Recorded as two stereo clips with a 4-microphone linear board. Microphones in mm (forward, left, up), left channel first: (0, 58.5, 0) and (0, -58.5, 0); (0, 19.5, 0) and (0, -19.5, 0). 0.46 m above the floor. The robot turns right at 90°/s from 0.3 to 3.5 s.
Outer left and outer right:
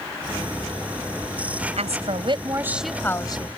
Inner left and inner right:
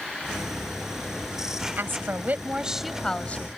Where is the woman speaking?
100° right; by 3.5 s 55° left.